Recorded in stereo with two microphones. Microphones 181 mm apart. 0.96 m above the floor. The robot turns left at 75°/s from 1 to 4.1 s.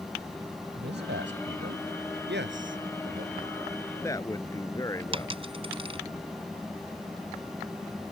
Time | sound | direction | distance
0.8 | a man speaking | 70° right | ?
2.3 | a man speaking | 60° right | ?
5.1 | a dropped coin | 30° right (ahead or behind) | ?